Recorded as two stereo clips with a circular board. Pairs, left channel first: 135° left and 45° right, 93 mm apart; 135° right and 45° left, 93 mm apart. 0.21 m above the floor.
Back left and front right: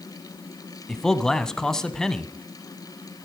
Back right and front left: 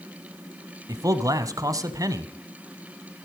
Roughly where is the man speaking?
Ahead left.